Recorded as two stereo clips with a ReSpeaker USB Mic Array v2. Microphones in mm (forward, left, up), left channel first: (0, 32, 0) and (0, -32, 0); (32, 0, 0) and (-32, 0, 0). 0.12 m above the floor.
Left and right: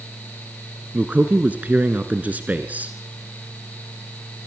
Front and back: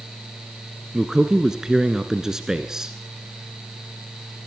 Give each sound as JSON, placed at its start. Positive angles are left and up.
{"t": 0.9, "sound": "a man speaking", "azimuth_deg": -110, "distance_m": 1.5}